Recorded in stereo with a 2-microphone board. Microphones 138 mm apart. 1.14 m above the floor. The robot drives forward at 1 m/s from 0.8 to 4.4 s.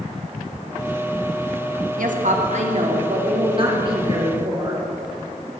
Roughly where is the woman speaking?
Right.